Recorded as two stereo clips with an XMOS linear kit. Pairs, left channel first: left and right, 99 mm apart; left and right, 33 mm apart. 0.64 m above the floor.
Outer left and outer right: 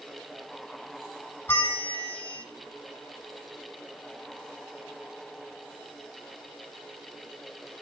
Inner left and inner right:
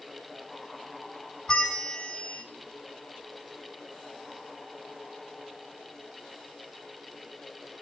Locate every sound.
1.5 s a bell: 20° left (ahead or behind), 1.2 m